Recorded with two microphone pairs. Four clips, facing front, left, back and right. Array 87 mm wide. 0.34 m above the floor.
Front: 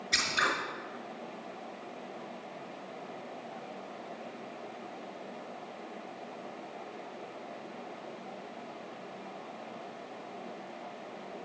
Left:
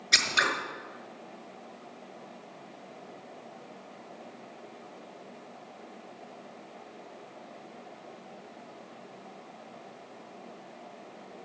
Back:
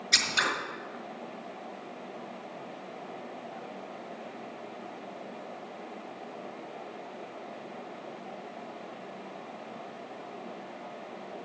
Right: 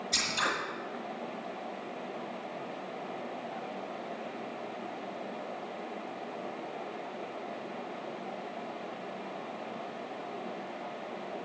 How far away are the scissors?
About 4.5 m.